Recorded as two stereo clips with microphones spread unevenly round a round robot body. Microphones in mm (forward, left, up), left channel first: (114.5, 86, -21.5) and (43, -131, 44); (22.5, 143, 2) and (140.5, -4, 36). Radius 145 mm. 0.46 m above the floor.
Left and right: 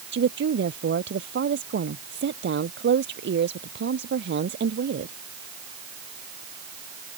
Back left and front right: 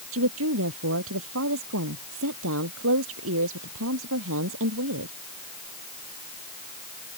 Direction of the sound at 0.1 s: 70° right.